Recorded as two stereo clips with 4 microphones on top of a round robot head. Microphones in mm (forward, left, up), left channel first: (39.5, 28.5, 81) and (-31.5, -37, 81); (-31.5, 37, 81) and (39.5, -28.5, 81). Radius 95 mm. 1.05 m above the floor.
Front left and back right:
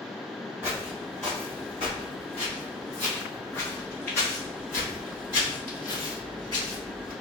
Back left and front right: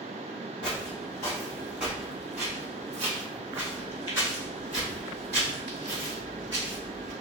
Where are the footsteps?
160° left, 1.1 m; by 7.1 s 15° left, 4.5 m.